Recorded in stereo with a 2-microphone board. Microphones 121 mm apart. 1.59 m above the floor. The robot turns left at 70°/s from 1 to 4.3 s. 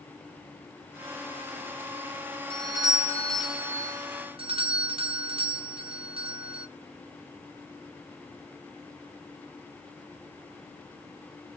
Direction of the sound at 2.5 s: 60° left.